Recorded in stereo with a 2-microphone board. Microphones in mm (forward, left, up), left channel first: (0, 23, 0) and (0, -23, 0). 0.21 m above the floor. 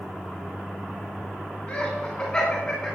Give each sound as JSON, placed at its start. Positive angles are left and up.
{"t": 1.7, "sound": "laughter", "side_deg": 25, "distance_m": 2.5}